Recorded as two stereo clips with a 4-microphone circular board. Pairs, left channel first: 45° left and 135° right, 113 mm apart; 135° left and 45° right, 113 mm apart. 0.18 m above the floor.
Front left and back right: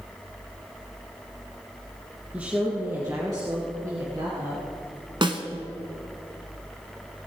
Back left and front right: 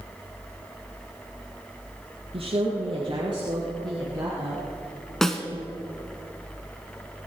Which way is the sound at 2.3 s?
60° right.